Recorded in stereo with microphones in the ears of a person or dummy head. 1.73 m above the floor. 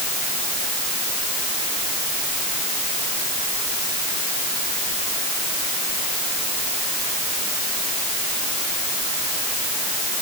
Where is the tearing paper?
No tearing paper in this recording.